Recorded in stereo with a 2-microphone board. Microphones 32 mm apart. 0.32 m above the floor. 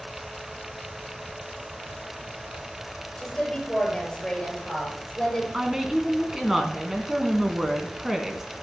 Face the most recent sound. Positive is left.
turn(degrees=-15)  # may be behind; listen again after turning